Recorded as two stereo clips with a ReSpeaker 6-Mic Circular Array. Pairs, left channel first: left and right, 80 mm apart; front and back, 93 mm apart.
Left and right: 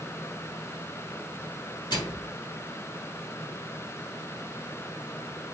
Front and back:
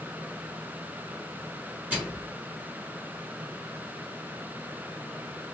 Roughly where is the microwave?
Left.